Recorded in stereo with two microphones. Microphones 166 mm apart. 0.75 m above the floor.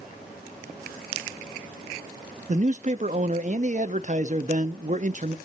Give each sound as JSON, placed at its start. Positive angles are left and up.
{"t": 2.5, "sound": "a man speaking", "side_deg": -50, "distance_m": 0.7}